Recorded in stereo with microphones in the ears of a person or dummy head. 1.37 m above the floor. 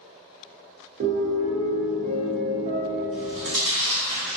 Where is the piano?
40° right (ahead or behind), 0.5 m.